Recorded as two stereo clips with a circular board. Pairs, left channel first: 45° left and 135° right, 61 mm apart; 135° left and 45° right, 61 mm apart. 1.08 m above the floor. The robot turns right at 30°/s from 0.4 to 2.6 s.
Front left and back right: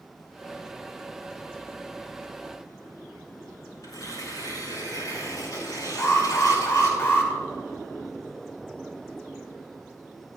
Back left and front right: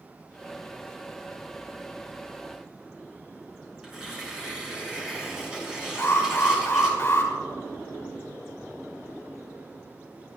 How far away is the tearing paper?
About 6.5 m.